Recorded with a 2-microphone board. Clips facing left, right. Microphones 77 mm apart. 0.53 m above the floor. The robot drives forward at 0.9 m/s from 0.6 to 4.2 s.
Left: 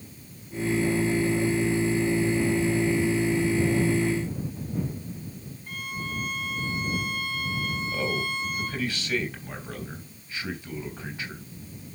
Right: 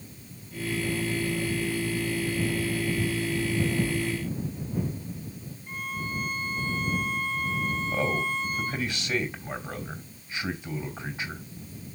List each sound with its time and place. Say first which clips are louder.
5.7 s a violin: right 1 dB; 70° left (ahead or behind), 3 m
7.9 s a man speaking: right 2 dB; 20° right (ahead or behind), 3.5 m